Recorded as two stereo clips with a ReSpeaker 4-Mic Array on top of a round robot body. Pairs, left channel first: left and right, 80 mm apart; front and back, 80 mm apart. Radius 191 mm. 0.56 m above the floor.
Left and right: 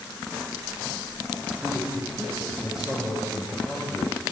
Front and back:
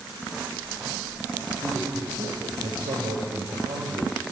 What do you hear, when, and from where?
1.6 s a man speaking: 170° right, 3.5 m